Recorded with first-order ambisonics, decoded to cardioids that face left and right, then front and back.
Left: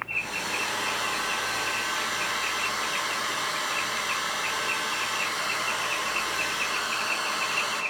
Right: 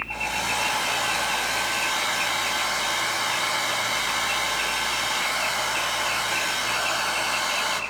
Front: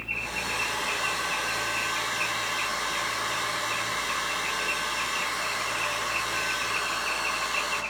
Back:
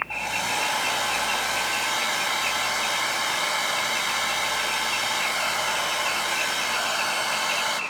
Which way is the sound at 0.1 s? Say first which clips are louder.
Right 3 dB, back 4 dB; 140° right.